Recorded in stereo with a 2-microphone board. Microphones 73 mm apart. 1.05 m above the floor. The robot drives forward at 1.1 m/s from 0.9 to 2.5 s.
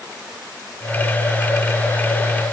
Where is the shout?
I don't hear a shout.